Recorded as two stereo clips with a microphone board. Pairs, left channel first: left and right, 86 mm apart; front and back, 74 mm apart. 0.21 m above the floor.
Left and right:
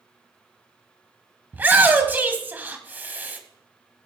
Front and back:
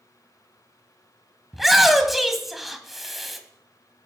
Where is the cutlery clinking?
No cutlery clinking in this recording.